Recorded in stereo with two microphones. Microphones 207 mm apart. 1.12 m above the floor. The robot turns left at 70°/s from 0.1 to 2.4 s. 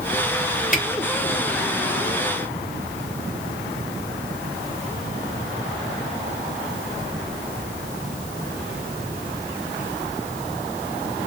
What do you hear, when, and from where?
0.7 s a camera shutter: 40° left (ahead or behind), 2.5 m; by 0.8 s 50° left (ahead or behind), 2.5 m